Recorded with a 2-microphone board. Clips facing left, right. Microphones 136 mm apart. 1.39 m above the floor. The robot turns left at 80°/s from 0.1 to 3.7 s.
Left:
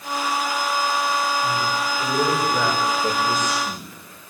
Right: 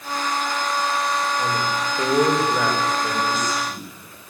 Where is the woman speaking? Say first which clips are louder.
Even; 80° right, 7 m; by 4.3 s 95° left, 7 m.